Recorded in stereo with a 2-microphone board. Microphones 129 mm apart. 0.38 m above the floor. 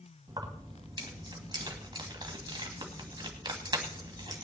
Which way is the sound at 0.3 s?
35° right (ahead or behind).